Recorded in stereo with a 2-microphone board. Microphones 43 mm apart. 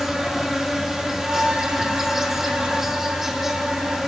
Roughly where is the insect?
Centre.